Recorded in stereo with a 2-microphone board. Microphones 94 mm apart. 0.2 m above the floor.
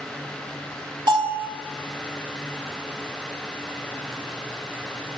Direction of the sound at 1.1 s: 60° right (ahead or behind).